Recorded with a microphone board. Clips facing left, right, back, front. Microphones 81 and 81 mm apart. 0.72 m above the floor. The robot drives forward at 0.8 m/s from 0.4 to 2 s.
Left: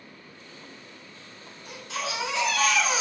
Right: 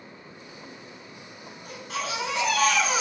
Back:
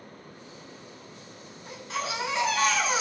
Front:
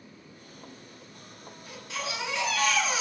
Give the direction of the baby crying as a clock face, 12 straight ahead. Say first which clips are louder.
Right 1 dB, back 4 dB; 4 o'clock.